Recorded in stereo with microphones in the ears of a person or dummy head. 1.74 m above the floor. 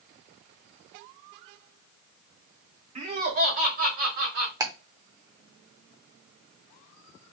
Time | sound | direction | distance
3.0 | laughter | 40° right (ahead or behind) | 1.1 m
4.6 | ticking | 20° right (ahead or behind) | 0.6 m